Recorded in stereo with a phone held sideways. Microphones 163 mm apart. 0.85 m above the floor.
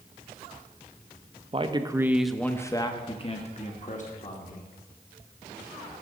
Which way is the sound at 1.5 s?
35° right (ahead or behind).